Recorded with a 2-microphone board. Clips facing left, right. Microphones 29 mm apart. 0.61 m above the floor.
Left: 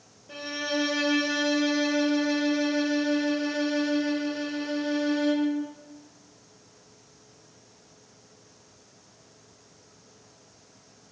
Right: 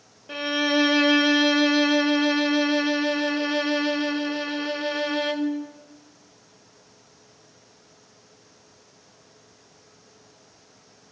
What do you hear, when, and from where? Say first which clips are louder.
0.3 s a violin: right 7 dB; 50° right (ahead or behind), 0.6 m